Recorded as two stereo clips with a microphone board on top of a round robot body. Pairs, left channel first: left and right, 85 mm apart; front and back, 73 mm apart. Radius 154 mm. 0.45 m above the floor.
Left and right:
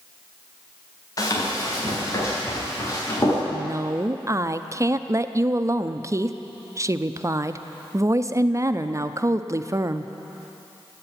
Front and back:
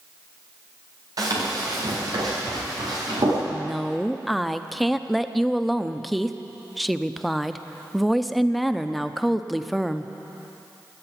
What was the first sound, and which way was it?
Running footsteps, 140° left.